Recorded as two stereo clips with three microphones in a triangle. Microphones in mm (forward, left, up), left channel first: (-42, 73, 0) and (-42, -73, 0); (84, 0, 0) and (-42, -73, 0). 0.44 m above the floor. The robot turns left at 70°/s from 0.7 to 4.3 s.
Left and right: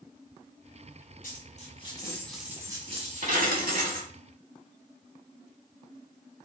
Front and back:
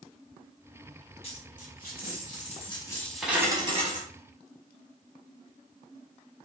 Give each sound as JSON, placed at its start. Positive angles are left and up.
{"t": 1.2, "sound": "a dropped coin", "azimuth_deg": 75, "distance_m": 1.2}